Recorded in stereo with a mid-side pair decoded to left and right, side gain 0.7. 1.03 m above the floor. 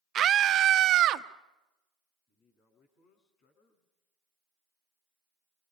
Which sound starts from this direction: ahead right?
A scream, at 0.1 s.